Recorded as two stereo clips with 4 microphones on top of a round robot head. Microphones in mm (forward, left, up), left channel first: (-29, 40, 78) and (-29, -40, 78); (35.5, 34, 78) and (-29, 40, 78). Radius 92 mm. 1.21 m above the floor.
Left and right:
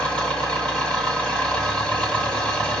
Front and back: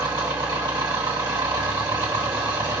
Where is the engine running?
165° left, 2.0 m.